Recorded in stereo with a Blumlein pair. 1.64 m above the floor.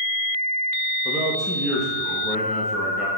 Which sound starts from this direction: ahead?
A man speaking, at 1.1 s.